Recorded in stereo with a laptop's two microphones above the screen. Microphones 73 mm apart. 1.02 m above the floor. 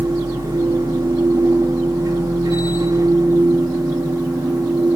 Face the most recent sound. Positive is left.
turn(degrees=-65)  # may be behind; listen again after turning